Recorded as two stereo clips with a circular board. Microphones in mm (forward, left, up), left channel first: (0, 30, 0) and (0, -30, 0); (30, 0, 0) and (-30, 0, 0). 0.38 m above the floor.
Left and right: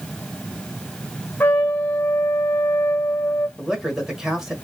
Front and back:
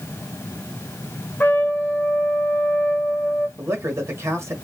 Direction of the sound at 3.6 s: 165° right.